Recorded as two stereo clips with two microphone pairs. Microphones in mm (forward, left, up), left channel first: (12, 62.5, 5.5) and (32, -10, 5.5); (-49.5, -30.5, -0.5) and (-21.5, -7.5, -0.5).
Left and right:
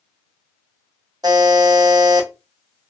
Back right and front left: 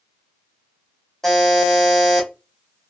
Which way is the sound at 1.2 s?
65° right.